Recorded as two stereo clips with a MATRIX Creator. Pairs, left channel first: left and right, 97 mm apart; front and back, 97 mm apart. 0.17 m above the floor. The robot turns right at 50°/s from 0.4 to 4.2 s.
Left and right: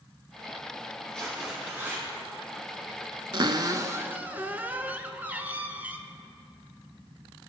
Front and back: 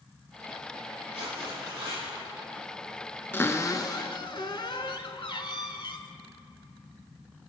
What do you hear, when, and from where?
1.1 s tearing paper: 165° left, 4 m; by 2.0 s 145° right, 4 m
3.3 s a cupboard door: 65° right, 0.6 m; by 6.0 s 20° right, 0.6 m